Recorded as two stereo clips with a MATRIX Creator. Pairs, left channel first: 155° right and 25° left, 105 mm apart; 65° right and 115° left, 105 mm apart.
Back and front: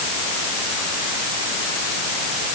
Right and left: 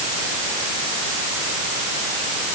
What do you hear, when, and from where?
Only background noise.